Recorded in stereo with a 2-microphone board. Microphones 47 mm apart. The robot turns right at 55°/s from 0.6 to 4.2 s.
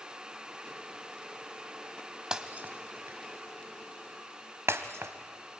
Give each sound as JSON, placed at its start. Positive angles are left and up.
{"t": 2.3, "sound": "breaking glass", "side_deg": -15, "distance_m": 1.2}